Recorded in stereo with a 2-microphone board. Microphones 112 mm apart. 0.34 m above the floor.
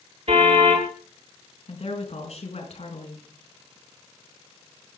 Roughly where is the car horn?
Right.